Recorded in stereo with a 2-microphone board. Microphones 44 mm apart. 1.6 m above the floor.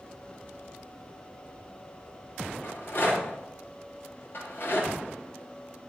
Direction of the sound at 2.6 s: 50° left (ahead or behind).